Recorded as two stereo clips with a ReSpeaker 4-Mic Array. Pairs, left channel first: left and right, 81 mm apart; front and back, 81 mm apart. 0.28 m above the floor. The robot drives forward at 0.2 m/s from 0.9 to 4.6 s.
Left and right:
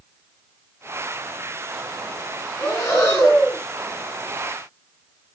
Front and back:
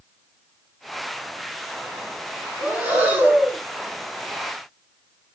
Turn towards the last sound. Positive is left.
turn(degrees=125)